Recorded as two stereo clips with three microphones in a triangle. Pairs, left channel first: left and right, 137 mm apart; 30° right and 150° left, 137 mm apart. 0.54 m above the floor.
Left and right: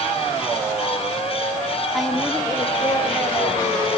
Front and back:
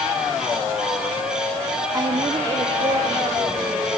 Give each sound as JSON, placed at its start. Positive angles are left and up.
{"t": 1.9, "sound": "a woman speaking", "azimuth_deg": -175, "distance_m": 1.1}